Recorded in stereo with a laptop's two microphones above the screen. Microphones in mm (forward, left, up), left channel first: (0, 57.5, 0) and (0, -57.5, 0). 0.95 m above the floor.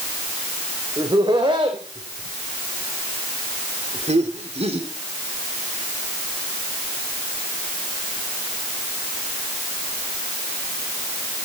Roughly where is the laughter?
Right.